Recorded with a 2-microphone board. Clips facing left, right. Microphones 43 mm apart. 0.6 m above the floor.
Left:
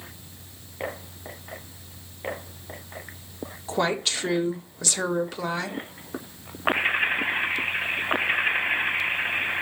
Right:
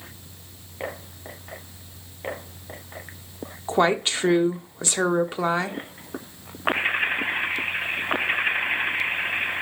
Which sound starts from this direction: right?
A woman speaking, at 3.7 s.